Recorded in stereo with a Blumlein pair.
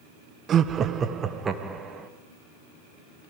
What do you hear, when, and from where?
0.5 s laughter: 25° right, 1.0 m; by 2.1 s 15° right, 2.5 m